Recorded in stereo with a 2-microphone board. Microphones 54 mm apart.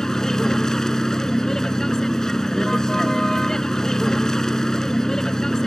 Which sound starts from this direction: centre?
A vehicle, at 0.0 s.